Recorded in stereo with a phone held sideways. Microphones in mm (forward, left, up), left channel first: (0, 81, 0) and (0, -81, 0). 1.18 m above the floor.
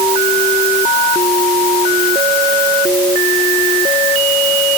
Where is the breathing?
No breathing in this recording.